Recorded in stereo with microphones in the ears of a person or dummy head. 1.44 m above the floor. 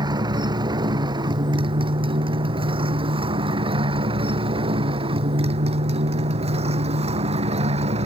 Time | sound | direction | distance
0.0 | a motorcycle | 25° right (ahead or behind) | ?